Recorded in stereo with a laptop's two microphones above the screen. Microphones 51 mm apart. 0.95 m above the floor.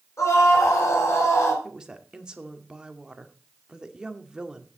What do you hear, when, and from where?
0.2 s a scream: 60° left (ahead or behind), 4 m; by 1.5 s 55° left (ahead or behind), 3.5 m
1.6 s a woman speaking: 15° right (ahead or behind), 1.9 m